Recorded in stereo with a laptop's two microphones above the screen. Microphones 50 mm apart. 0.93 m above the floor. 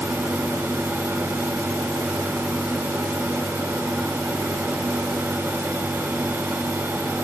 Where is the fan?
70° right (ahead or behind), 6 m.